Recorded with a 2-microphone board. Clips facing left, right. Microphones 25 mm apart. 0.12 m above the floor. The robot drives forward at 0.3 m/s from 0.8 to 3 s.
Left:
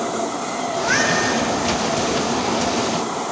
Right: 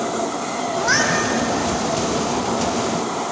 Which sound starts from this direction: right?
A cat meowing, at 0.8 s.